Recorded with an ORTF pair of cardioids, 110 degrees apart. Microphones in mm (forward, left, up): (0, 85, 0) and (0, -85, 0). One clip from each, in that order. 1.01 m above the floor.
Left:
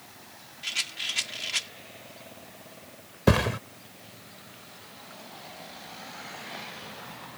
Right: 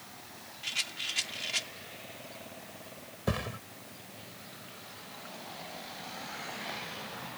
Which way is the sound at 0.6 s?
25° left.